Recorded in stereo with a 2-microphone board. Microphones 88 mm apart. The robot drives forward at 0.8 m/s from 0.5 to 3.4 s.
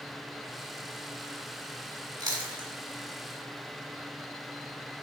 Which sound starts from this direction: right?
Chewing, at 2.2 s.